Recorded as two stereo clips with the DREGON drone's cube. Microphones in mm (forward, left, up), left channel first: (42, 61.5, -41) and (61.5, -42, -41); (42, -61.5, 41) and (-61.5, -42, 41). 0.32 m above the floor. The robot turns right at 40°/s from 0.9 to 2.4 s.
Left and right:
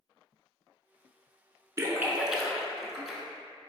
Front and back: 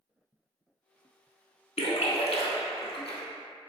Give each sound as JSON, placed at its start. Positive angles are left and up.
{"t": 1.8, "sound": "a splash", "azimuth_deg": -15, "distance_m": 0.6}